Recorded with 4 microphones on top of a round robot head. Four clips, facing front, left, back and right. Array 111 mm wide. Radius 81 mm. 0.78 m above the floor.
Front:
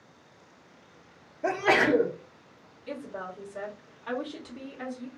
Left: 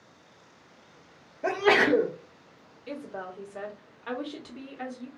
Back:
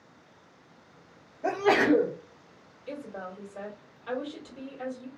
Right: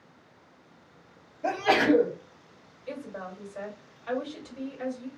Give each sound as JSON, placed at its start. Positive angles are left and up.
{"t": 1.4, "sound": "a sneeze", "azimuth_deg": 70, "distance_m": 1.0}
{"t": 2.9, "sound": "a woman speaking", "azimuth_deg": 70, "distance_m": 1.5}